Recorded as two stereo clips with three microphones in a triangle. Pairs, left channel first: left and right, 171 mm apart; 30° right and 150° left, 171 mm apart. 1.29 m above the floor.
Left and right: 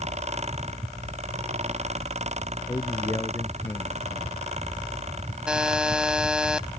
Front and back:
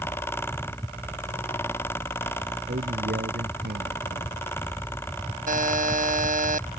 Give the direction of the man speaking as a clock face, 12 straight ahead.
7 o'clock.